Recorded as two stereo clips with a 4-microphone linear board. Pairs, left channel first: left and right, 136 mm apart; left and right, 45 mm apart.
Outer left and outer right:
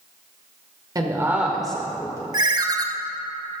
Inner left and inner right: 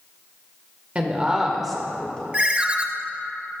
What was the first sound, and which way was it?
A woman speaking, 30° right (ahead or behind).